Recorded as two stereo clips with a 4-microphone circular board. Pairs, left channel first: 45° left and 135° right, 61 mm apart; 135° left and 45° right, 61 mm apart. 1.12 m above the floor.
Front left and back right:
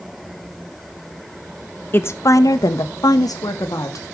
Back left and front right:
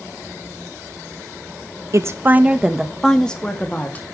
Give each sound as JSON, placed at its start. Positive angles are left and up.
{"t": 1.9, "sound": "a woman speaking", "azimuth_deg": -10, "distance_m": 0.9}